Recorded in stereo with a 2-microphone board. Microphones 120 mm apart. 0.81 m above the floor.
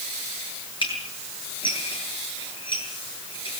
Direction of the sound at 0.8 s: 45° left (ahead or behind).